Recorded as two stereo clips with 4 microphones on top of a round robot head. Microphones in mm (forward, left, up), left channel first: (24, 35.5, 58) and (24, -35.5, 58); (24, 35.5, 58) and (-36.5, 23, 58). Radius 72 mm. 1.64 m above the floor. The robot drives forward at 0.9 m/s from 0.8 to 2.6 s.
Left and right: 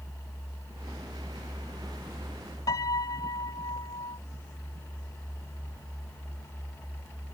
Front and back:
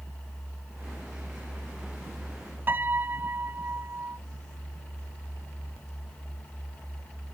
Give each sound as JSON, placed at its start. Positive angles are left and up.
{"t": 2.7, "sound": "a piano", "azimuth_deg": 135}